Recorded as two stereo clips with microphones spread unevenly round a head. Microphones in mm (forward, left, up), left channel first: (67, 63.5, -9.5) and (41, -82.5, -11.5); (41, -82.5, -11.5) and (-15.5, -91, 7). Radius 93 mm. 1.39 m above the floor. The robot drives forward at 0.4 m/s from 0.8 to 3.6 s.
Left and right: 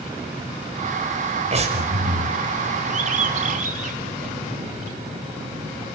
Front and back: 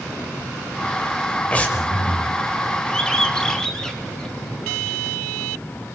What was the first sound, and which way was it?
Breathing, 60° right.